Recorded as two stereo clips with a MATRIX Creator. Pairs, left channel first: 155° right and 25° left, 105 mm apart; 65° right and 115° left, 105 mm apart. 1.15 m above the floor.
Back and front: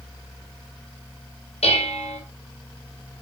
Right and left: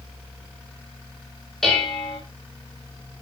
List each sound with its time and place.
1.6 s dishes clattering: 155° right, 3.5 m